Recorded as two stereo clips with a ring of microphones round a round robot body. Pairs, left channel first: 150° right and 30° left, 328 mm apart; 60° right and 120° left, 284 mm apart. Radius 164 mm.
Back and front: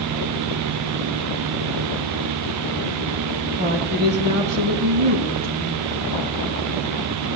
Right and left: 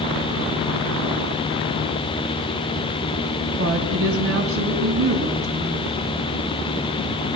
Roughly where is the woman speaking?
Left.